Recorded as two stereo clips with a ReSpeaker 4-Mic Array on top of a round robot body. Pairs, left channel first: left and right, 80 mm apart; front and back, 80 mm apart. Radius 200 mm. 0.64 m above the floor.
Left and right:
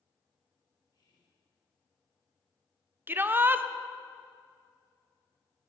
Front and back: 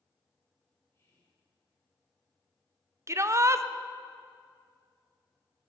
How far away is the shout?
About 0.7 m.